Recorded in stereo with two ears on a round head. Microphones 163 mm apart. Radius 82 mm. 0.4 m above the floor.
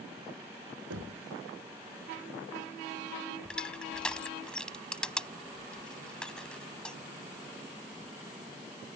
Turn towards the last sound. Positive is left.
turn(degrees=5)  # may be behind; listen again after turning